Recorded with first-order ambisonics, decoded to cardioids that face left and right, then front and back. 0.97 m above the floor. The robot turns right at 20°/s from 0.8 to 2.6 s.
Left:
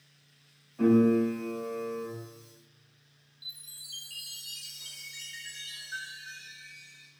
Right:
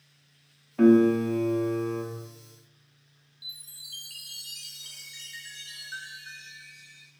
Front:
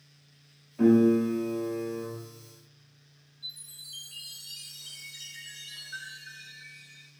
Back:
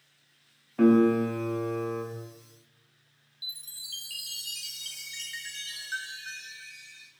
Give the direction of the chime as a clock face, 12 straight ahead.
6 o'clock.